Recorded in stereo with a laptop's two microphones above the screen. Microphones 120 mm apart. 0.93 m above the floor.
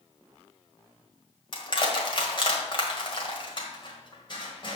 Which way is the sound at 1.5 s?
45° left (ahead or behind).